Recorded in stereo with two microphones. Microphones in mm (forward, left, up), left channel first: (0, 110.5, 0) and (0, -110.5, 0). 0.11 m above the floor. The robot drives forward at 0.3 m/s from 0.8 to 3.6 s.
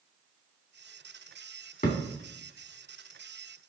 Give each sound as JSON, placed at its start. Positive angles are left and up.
{"t": 1.8, "sound": "a thud", "side_deg": 35, "distance_m": 2.0}